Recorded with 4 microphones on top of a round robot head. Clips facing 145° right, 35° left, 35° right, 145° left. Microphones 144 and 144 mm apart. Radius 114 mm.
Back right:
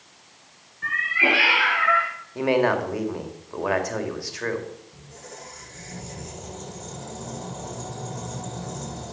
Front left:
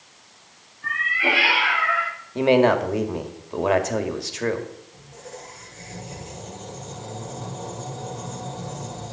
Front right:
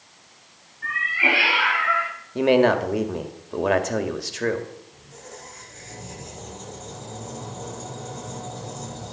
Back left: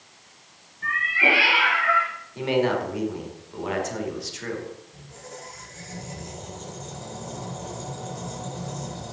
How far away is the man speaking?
About 2 m.